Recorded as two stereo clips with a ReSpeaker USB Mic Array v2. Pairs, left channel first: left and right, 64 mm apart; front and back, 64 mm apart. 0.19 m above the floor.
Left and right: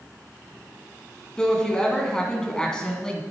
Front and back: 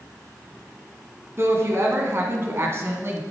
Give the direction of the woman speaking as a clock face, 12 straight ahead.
7 o'clock.